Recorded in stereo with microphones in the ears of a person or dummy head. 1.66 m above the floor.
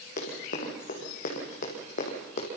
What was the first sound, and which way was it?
Running footsteps, 50° left (ahead or behind).